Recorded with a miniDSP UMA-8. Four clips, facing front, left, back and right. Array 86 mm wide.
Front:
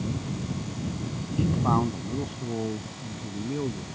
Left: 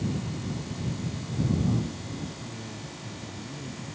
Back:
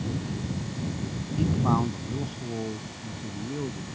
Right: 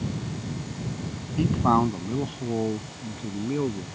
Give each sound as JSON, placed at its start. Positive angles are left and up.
{"t": 1.4, "sound": "a man speaking", "azimuth_deg": -85}